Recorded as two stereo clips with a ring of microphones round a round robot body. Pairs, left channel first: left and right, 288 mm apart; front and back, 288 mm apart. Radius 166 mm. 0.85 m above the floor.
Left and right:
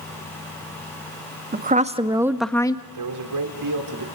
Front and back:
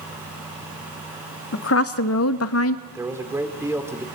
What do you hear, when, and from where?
1.5 s a woman speaking: 35° right, 1.9 m; by 2.8 s 20° left, 1.4 m
2.9 s a man speaking: 100° right, 3 m